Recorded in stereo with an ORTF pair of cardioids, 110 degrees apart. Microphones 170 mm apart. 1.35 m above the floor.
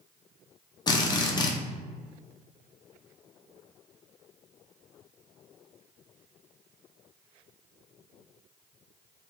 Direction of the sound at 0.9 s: 30° left.